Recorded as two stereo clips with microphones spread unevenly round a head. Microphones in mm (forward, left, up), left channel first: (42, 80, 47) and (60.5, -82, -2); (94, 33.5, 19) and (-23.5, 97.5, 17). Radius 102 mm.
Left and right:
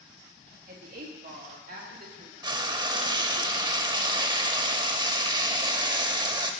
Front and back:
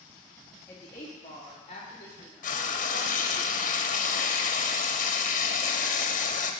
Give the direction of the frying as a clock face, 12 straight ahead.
1 o'clock.